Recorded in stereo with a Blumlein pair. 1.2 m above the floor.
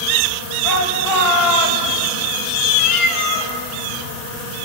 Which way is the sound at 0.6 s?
45° left.